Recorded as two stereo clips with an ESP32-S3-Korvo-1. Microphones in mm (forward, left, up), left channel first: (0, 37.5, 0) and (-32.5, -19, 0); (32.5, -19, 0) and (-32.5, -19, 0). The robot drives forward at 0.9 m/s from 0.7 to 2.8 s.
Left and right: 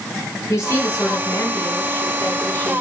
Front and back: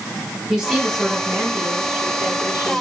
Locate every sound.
0.5 s a woman speaking: 90° left, 5 m; by 2.8 s 110° left, 5.5 m